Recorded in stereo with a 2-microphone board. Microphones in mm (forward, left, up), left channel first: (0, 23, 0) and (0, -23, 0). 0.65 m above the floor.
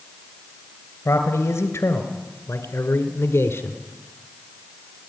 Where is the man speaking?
75° left (ahead or behind), 3 m; by 3.8 s 65° left (ahead or behind), 1.7 m.